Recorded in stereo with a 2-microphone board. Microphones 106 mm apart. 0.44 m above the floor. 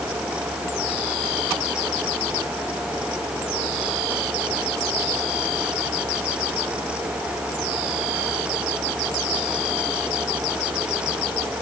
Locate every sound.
Only background noise.